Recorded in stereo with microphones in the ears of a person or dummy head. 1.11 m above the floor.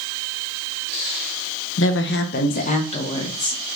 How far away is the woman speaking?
About 0.5 m.